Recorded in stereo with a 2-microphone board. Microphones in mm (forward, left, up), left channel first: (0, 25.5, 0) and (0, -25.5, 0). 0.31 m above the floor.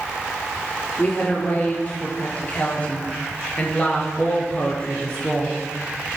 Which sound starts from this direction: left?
A woman speaking, at 1.0 s.